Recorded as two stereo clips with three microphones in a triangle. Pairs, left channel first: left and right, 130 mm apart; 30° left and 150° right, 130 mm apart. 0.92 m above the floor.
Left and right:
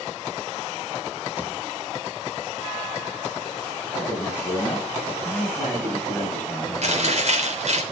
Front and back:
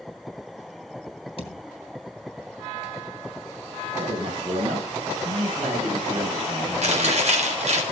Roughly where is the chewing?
Behind right.